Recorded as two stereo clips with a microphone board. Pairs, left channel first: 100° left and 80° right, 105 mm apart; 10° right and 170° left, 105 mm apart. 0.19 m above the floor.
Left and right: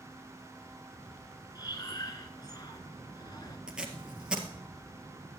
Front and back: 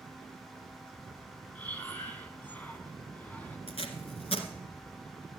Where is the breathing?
60° left, 1.3 m.